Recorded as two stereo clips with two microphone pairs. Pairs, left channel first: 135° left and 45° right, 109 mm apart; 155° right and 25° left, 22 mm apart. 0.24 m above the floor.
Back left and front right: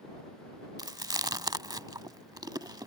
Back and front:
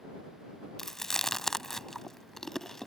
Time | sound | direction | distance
0.8 | chewing | 85° right | ?